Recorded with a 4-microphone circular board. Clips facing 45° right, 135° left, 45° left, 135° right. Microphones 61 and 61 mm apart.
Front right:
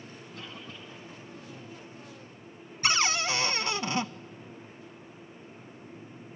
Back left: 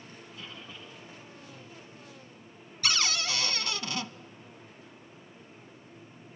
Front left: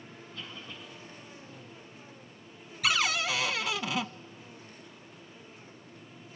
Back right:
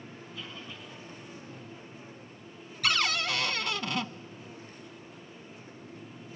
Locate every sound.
0.3 s a cough: 50° right, 8 m
2.8 s a cupboard door: 40° right, 0.6 m